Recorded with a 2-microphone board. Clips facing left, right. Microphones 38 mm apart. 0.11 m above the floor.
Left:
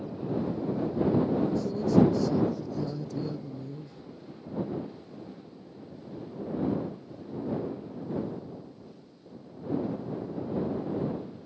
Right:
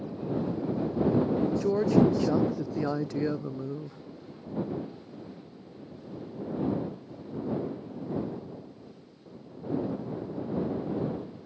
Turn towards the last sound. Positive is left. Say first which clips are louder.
# right 1 dB
turn(degrees=-75)  # may be behind; listen again after turning